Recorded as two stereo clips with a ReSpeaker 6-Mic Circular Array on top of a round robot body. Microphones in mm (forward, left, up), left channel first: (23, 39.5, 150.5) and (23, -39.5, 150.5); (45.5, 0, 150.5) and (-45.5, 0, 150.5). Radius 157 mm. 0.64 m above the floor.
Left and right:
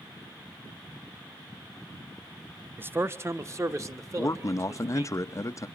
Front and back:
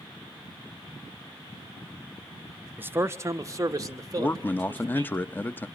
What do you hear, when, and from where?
2.8 s a man speaking: 130° right, 0.7 m; by 5.2 s 135° right, 1.7 m
4.2 s a man speaking: 60° left, 0.8 m